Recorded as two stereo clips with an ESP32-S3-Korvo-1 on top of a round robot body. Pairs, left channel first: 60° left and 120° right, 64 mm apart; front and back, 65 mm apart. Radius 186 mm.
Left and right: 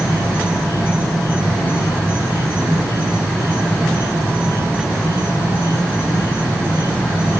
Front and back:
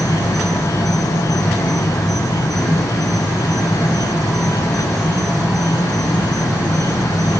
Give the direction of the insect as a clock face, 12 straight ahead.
12 o'clock.